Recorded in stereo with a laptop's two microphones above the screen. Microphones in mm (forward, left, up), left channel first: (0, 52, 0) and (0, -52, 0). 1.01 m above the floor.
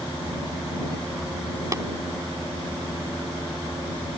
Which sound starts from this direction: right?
Tapping, at 1.7 s.